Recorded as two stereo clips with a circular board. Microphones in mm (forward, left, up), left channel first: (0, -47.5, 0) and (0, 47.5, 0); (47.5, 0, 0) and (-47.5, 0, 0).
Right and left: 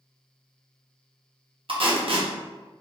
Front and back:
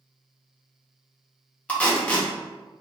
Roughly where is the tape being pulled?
Left.